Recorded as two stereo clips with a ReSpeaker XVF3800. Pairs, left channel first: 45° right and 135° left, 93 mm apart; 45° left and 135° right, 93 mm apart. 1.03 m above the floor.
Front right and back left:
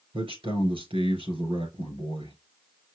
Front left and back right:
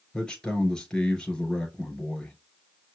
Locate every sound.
0.1 s a man speaking: 130° left, 4.5 m